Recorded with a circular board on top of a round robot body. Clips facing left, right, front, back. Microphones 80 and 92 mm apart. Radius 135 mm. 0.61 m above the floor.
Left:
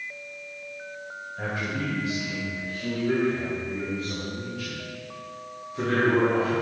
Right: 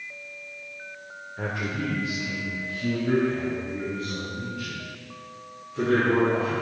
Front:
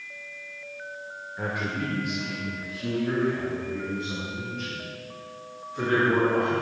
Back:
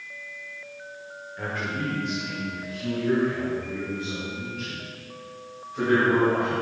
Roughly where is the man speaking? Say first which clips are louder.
Right 1 dB, even; right.